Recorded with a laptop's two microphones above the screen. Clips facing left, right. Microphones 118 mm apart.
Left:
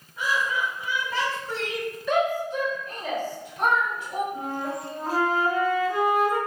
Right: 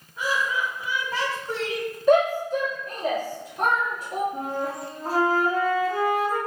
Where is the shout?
40° right (ahead or behind), 0.8 m.